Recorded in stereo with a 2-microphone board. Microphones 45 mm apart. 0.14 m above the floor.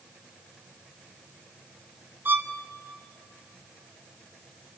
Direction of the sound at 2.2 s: 55° right (ahead or behind).